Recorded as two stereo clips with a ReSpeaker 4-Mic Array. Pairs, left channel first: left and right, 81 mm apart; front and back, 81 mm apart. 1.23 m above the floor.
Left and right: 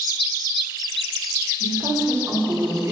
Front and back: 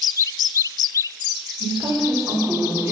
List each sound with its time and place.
1.6 s a woman speaking: 130° right, 5 m; by 2.9 s 125° right, 4 m